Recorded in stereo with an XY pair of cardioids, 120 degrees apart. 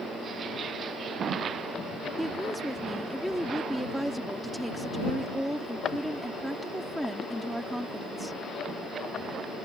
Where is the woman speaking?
5° right.